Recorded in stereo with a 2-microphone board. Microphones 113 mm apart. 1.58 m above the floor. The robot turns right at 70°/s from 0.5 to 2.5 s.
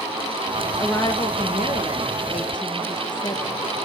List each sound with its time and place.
0.8 s a woman speaking: 15° left, 1.5 m; by 3.6 s 135° left, 1.5 m